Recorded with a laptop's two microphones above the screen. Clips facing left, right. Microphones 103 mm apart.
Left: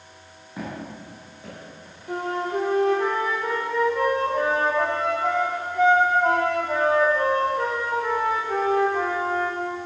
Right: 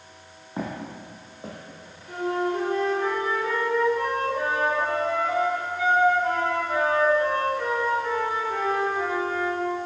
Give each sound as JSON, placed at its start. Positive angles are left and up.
{"t": 0.6, "sound": "footsteps", "side_deg": -35, "distance_m": 2.5}
{"t": 2.1, "sound": "a flute", "side_deg": 75, "distance_m": 1.9}